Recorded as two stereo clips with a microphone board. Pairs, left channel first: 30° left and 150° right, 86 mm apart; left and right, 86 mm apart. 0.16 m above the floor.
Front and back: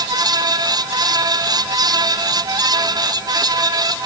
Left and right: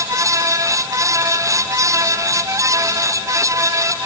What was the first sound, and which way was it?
Only background noise.